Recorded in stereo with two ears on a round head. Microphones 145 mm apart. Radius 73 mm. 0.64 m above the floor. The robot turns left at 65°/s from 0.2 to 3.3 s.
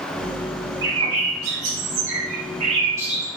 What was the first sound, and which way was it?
A bird, 20° right.